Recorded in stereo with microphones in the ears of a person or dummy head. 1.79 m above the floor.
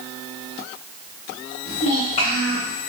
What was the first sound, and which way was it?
A child speaking, 40° left (ahead or behind).